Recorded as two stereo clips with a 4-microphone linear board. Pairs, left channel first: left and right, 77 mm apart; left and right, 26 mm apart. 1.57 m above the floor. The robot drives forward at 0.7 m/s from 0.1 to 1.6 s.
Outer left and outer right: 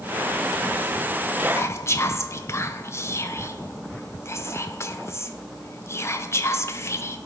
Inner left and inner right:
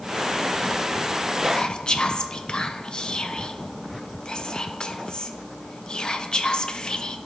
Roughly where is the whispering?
Left.